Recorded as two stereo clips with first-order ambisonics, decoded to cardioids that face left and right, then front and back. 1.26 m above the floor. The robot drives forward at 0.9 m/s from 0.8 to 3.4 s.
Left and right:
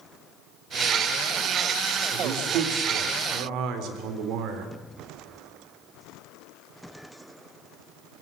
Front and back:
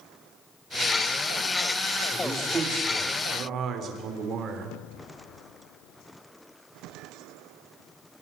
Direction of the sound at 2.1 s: 105° right.